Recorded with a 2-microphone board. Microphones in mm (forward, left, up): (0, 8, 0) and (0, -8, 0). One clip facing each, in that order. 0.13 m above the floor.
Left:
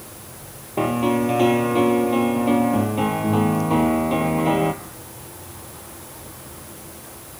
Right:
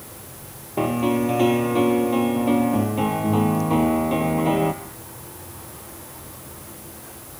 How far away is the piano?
About 1.3 m.